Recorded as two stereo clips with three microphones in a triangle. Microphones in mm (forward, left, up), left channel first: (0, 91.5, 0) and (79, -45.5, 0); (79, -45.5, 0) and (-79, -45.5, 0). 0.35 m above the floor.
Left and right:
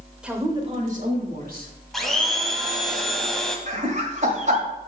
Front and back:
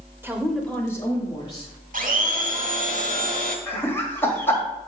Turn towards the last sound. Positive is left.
turn(degrees=-75)